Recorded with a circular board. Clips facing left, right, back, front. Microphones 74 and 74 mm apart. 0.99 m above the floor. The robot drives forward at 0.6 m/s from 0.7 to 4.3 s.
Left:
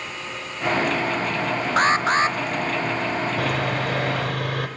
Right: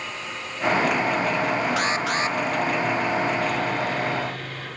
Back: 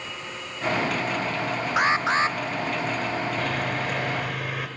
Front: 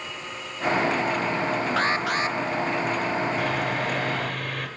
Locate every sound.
1.8 s an alarm: 115° left, 1.0 m; by 2.4 s 135° left, 1.2 m
3.4 s sawing: 85° left, 3 m; by 4.7 s 100° left, 3 m